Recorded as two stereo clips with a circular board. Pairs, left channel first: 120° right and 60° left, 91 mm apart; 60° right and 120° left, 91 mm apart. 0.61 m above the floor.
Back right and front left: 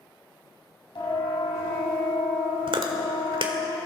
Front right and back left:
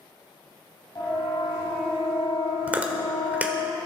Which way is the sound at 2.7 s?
50° left.